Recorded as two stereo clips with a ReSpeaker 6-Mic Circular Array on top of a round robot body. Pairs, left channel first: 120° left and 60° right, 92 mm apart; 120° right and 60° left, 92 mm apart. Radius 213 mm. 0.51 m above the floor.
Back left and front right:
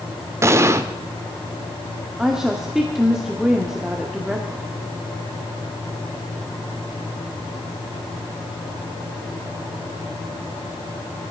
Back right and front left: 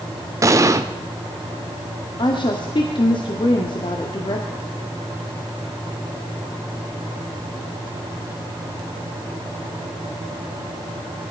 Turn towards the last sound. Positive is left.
turn(degrees=-140)